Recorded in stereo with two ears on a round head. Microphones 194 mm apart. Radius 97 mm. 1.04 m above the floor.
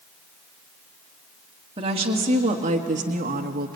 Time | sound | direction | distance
1.8 | a woman speaking | 25° right (ahead or behind) | 2.5 m